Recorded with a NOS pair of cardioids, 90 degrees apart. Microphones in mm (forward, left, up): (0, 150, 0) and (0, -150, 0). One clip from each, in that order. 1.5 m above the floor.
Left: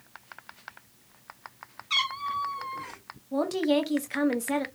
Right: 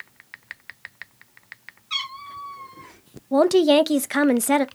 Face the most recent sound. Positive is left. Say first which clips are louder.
# right 10 dB
turn(degrees=-55)